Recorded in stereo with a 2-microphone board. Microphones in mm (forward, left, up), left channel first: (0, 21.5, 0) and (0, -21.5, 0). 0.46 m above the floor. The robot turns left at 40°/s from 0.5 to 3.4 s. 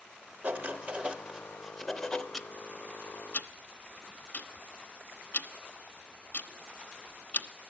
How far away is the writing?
About 0.8 m.